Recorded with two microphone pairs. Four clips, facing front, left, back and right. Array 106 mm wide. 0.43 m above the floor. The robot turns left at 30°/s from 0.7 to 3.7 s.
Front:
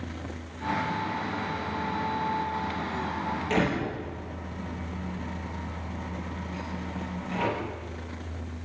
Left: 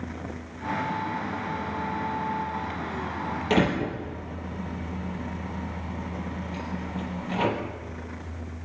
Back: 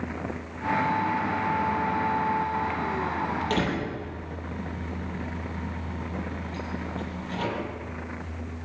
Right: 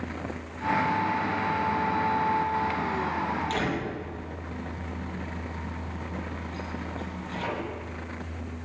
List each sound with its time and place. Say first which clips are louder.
3.5 s a door slam: left 5 dB, even; 95° left, 7 m; by 7.5 s 90° left, 7 m